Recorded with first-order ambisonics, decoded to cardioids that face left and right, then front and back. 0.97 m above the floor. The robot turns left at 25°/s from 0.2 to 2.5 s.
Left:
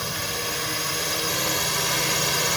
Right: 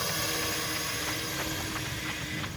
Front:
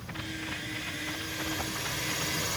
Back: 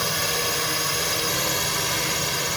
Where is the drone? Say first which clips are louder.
Left 3 dB, back 14 dB; 170° left; by 2.6 s 115° left.